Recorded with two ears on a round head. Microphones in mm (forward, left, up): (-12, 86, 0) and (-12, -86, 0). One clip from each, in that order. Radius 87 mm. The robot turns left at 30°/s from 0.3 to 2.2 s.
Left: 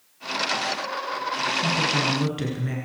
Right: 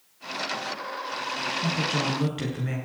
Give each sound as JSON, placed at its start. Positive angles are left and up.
{"t": 1.6, "sound": "a woman speaking", "side_deg": 20, "distance_m": 8.0}